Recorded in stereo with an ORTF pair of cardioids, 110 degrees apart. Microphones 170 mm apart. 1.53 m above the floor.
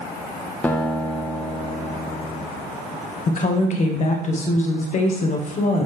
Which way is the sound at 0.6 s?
10° left.